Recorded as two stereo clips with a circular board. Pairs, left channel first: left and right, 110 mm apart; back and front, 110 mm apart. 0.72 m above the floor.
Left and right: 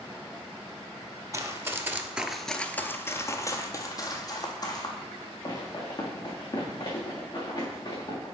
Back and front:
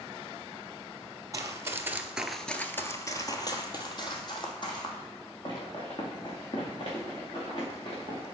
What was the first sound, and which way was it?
Running footsteps, 45° right.